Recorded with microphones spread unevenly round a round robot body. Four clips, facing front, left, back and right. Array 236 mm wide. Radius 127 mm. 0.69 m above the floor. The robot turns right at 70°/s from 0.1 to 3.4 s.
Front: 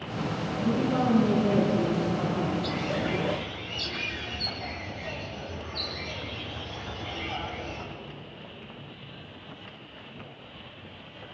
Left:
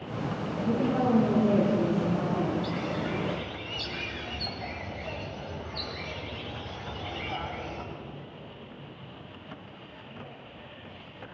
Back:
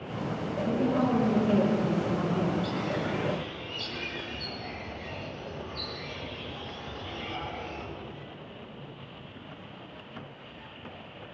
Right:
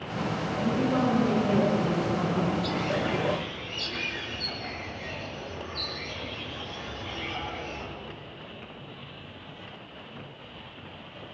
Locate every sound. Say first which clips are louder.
0.6 s a woman speaking: even, front 1 dB; 40° right, 9 m; by 2.5 s 90° left, 9 m
2.6 s a bird: right 3 dB, front 1 dB; 15° right, 4.5 m; by 7.8 s 40° left, 4.5 m